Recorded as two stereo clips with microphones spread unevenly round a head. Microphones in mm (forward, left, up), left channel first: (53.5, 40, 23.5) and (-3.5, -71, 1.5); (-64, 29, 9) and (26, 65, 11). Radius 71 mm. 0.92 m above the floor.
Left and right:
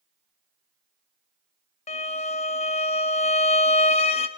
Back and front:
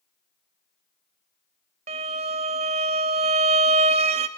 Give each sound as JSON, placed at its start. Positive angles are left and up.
{"t": 1.9, "sound": "a violin", "azimuth_deg": 30, "distance_m": 0.6}